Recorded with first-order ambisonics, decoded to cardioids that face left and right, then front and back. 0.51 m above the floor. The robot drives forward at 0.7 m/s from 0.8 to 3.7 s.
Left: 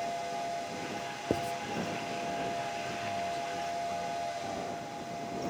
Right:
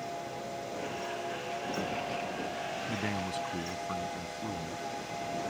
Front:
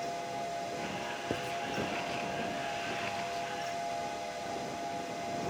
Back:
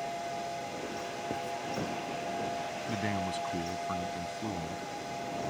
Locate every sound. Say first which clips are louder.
1.3 s writing: left 5 dB, even; 80° left
2.9 s a man speaking: even, back 1 dB; 140° right; by 4.8 s 145° right